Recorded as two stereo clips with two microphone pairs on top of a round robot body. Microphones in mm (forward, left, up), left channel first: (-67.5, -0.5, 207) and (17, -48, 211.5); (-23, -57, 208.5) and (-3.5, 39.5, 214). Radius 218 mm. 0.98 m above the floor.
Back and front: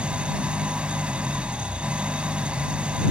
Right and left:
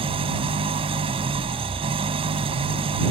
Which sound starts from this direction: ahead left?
An engine running, at 0.0 s.